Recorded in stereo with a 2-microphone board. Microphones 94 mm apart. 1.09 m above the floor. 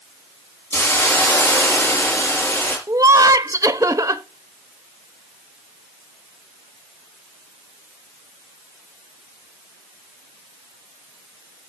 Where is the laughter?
40° right (ahead or behind), 1.0 m.